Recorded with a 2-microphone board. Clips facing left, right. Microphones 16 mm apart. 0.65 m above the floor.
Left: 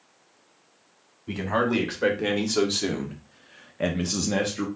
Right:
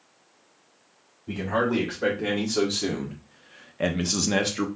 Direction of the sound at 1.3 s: 25° left (ahead or behind).